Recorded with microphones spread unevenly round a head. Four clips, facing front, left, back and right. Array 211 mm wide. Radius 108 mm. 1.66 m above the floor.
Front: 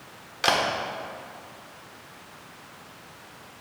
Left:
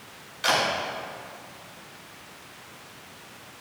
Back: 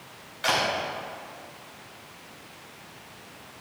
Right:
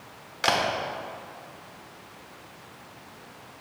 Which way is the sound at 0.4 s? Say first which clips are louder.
Even, front 2 dB; 35° right.